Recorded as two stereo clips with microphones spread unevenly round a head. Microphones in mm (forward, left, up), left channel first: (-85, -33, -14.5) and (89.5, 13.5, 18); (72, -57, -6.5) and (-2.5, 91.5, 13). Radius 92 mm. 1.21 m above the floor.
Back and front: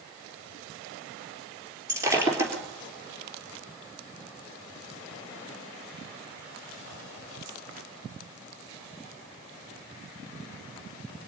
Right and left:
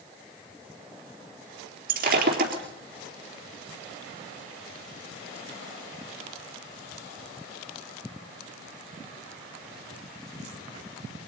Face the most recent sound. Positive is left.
turn(degrees=90)